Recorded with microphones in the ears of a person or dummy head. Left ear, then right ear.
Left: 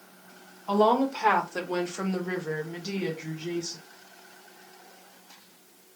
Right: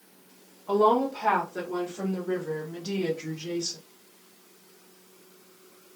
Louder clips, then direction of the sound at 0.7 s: Even; 85° left.